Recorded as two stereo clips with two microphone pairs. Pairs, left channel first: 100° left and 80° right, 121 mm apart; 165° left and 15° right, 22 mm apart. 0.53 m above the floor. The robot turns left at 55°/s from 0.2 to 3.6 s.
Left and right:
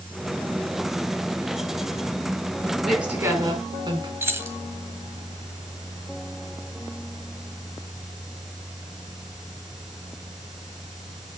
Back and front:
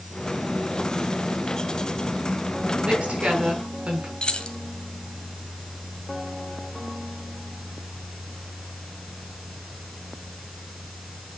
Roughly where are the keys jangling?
Behind right.